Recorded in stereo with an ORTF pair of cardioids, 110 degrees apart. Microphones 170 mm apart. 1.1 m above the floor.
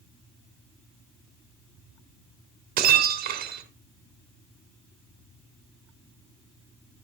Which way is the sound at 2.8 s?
60° right.